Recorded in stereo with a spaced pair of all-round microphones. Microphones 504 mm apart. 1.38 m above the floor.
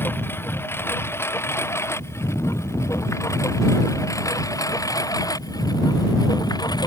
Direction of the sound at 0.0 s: 5° left (ahead or behind).